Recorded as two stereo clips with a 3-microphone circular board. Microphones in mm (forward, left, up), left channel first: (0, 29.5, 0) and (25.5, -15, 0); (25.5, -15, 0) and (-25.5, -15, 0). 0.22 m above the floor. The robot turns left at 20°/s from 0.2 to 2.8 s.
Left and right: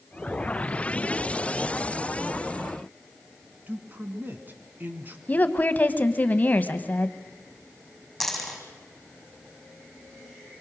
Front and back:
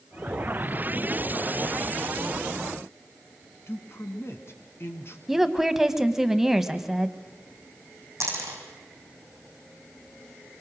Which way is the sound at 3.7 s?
15° right.